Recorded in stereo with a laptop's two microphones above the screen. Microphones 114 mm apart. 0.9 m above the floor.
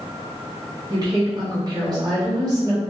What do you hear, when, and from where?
0.9 s a woman speaking: 35° right (ahead or behind), 1.2 m